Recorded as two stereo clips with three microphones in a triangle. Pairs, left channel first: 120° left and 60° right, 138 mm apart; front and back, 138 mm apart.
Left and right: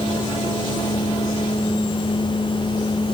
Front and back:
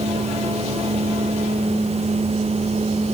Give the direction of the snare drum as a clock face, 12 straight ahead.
I don't hear a snare drum.